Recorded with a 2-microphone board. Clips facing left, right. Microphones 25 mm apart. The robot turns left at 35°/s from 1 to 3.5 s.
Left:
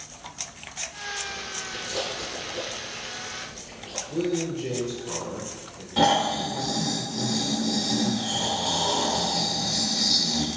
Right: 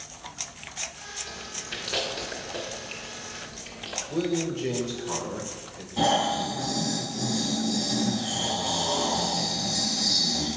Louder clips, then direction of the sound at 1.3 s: Left 3 dB; 30° right (ahead or behind).